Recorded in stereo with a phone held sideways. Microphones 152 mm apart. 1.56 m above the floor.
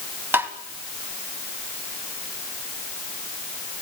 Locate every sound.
0.3 s tapping: 15° right (ahead or behind), 1.7 m